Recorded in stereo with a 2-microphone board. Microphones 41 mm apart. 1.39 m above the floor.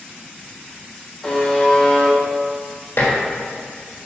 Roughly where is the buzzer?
Centre.